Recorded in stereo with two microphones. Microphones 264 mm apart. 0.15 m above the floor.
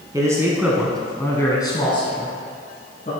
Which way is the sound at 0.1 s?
15° right (ahead or behind).